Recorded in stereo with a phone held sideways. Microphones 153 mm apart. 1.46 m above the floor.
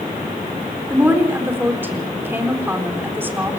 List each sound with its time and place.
0.9 s a woman speaking: 15° right (ahead or behind), 4 m